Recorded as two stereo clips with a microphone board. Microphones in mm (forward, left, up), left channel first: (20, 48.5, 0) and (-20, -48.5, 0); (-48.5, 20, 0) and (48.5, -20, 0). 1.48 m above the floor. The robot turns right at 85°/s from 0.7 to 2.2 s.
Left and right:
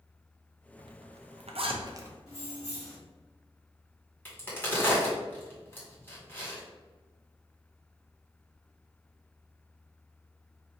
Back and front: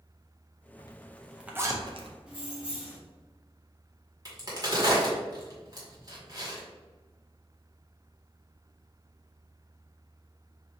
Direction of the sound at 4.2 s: 5° left.